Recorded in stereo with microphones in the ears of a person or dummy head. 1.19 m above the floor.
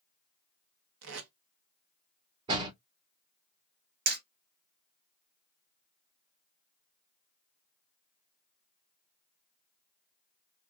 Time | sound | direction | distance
1.0 | tape being pulled | 80° right | 0.9 m
2.5 | a door slam | 30° right (ahead or behind) | 1.6 m
4.1 | hammering | 50° right (ahead or behind) | 0.7 m